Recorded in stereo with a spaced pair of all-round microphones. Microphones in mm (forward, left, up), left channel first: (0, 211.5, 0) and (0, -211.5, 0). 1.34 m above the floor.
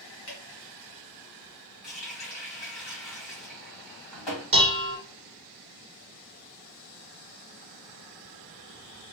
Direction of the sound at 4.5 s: 35° right (ahead or behind).